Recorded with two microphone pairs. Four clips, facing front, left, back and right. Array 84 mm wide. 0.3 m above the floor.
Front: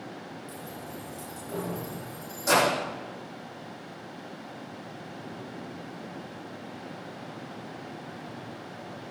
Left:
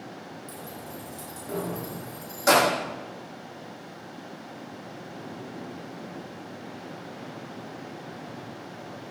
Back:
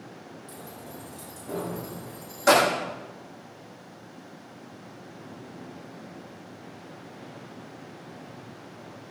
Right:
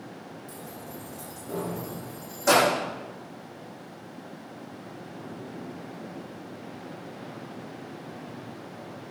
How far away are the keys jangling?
About 8 m.